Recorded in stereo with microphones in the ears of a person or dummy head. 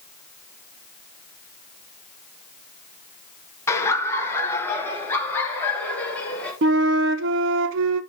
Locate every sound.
3.7 s laughter: 15° left (ahead or behind), 1.6 m; by 6.5 s 10° left (ahead or behind), 4.5 m
6.6 s a flute: 65° right (ahead or behind), 1.0 m